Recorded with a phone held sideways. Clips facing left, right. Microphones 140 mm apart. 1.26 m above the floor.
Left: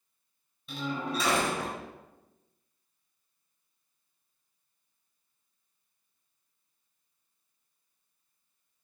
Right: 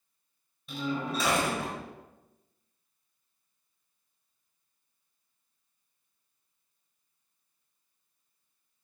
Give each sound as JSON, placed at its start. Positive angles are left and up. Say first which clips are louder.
{"t": 0.7, "sound": "a door slam", "louder": "right 1 dB", "side_deg": 0, "distance_m": 4.0}